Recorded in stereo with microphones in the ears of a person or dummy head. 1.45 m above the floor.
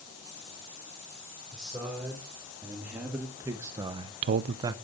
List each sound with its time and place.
1.5 s a man speaking: 5° right (ahead or behind), 3.5 m; by 4.8 s 25° right (ahead or behind), 0.7 m